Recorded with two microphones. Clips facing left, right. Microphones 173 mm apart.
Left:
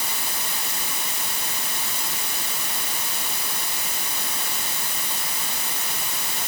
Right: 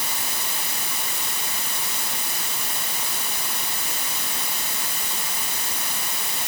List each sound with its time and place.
Only background noise.